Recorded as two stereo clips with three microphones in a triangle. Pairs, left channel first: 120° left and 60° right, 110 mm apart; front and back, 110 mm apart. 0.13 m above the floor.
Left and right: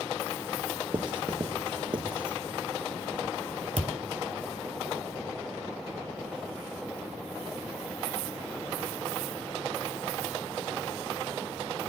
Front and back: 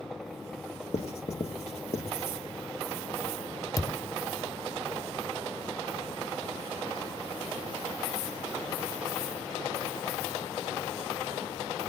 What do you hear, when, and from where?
0.9 s writing: 15° right, 0.9 m
3.8 s a thud: 60° right, 0.7 m